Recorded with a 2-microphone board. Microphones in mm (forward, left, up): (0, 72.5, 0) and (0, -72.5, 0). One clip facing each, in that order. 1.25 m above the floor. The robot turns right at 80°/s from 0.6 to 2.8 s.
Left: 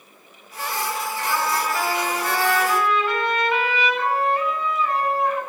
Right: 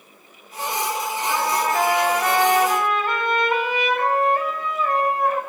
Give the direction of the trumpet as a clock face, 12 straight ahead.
6 o'clock.